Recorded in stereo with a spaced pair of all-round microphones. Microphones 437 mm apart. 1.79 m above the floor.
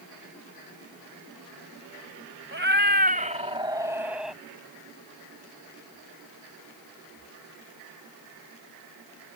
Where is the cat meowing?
25° right (ahead or behind); by 4.4 s centre (ahead or behind).